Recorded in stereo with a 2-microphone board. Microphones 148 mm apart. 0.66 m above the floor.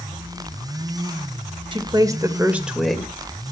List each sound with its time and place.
1.7 s a woman speaking: 35° right (ahead or behind), 2.0 m; by 3.5 s 15° left (ahead or behind), 2.5 m